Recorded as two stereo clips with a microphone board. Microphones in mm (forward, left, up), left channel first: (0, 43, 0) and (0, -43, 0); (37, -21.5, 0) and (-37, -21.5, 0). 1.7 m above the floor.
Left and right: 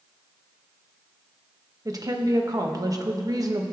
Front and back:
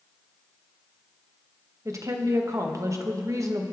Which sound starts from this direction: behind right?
A woman speaking, at 1.9 s.